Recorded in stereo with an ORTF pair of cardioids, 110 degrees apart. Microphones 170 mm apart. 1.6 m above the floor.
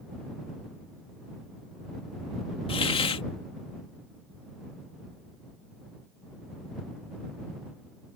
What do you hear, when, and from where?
2.7 s a hiss: 35° left